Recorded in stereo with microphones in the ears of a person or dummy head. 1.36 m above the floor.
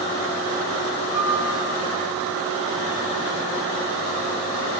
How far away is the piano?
About 8 m.